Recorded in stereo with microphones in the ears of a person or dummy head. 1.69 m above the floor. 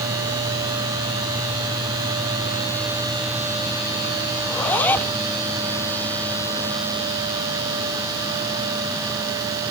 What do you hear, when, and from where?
4.4 s a zipper: 10° left (ahead or behind)